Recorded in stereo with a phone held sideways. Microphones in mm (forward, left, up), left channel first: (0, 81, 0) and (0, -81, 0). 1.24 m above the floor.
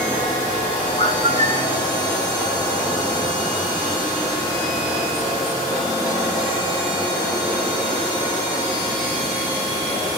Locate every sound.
1.0 s a bird: 40° left (ahead or behind), 0.7 m